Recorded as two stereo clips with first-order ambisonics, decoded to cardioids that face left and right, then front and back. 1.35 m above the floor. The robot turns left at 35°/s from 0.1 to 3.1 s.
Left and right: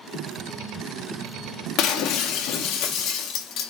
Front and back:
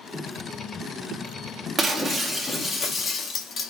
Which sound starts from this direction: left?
Breaking glass, at 1.8 s.